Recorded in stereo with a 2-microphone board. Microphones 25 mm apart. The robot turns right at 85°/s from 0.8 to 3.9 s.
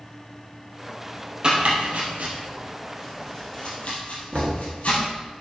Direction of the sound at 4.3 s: 60° right (ahead or behind).